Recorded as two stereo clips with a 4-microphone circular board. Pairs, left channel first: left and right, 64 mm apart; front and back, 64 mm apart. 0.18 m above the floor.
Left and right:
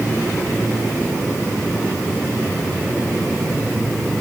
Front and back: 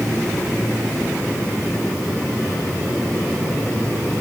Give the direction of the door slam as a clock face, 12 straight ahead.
I don't hear a door slam.